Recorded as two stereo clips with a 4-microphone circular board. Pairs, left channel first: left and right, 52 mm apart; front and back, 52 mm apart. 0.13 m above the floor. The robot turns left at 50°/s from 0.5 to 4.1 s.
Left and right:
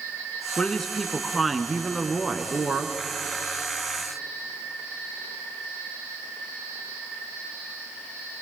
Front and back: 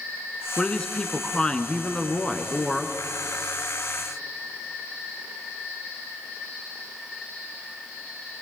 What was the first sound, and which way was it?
A woman speaking, 40° left.